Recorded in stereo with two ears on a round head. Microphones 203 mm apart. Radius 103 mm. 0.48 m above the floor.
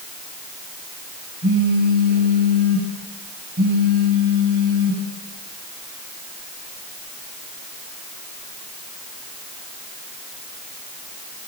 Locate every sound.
1.4 s a phone buzzing: 40° right (ahead or behind), 8.5 m